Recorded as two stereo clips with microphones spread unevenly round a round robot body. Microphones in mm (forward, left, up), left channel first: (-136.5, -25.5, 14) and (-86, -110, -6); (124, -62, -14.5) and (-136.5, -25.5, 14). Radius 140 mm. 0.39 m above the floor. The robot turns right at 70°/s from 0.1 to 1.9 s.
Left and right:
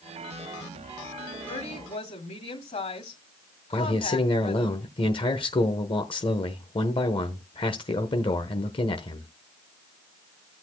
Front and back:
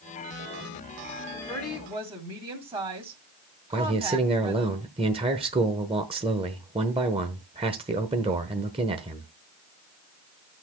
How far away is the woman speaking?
About 2 m.